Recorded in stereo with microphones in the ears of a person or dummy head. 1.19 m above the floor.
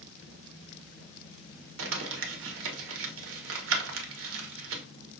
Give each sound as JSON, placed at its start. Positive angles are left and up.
{"t": 1.8, "sound": "crumpling", "side_deg": -60, "distance_m": 1.1}